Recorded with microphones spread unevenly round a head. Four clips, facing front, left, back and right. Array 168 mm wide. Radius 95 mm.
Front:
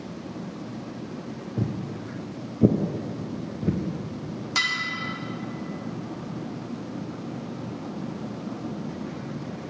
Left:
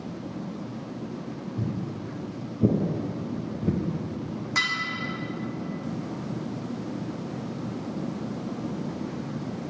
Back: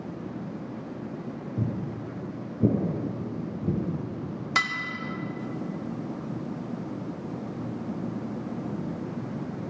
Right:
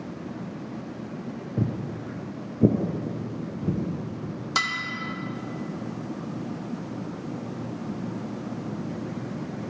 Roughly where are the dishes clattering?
Behind right.